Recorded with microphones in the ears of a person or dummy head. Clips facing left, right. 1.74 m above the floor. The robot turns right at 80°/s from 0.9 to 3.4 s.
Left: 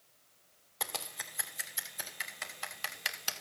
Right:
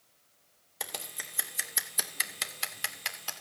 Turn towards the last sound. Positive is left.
turn(degrees=35)  # may be behind; listen again after turning